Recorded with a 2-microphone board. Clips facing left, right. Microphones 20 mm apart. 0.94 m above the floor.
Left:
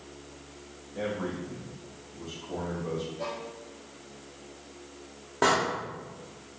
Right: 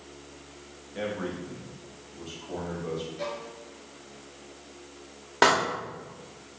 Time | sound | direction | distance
0.9 | a man speaking | 45° right (ahead or behind) | 1.4 m
3.2 | a violin | 45° right (ahead or behind) | 2 m
5.4 | a door slam | 70° right (ahead or behind) | 1.3 m